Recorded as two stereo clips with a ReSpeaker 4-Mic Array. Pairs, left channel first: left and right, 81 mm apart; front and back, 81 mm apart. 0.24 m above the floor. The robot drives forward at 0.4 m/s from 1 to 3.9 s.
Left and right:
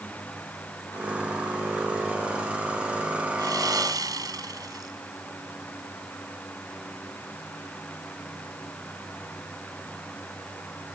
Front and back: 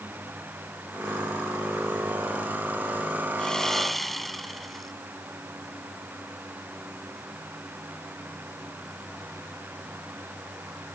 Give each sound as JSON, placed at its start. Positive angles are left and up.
{"t": 3.4, "sound": "sawing", "azimuth_deg": -80}